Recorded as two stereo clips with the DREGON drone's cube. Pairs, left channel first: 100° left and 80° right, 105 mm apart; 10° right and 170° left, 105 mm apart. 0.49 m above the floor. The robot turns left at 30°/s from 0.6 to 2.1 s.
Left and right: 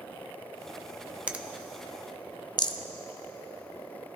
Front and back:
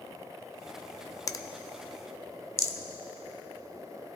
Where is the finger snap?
10° right, 0.5 m; by 1.4 s 20° right, 0.5 m.